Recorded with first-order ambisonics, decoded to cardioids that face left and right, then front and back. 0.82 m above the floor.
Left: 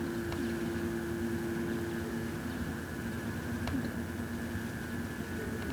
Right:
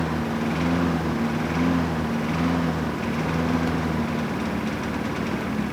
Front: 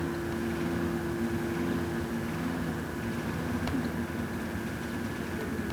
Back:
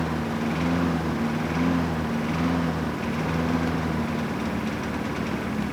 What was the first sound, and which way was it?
A lawn mower, 125° right.